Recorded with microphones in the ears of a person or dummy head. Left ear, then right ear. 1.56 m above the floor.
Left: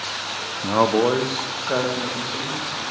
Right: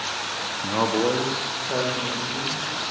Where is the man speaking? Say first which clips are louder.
Left 5 dB; 80° left, 0.7 m; by 2.6 s 65° left (ahead or behind), 3 m.